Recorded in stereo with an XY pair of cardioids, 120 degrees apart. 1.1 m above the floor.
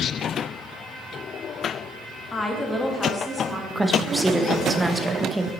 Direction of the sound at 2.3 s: 25° left.